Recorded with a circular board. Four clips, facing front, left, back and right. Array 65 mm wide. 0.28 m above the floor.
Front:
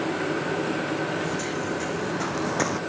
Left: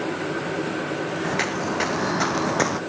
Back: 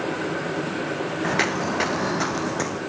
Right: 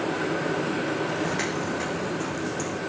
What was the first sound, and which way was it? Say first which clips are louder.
Footsteps: left 3 dB, back 5 dB; 160° left.